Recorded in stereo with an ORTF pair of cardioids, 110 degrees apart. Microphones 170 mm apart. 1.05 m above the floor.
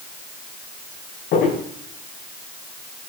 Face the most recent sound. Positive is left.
turn(degrees=70)